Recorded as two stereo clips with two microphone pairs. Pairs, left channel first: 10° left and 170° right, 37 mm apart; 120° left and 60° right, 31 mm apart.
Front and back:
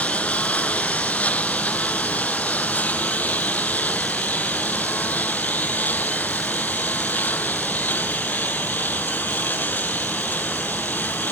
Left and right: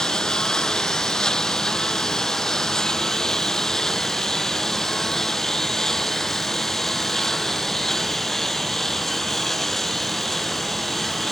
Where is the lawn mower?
60° left; by 11.3 s 45° left.